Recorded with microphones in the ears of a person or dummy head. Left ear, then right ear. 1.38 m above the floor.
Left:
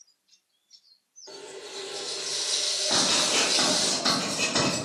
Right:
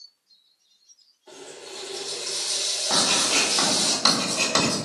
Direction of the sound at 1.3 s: Centre (ahead or behind).